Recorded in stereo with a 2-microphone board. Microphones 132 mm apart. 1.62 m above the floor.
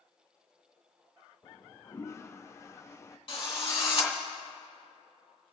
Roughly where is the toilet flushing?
Left.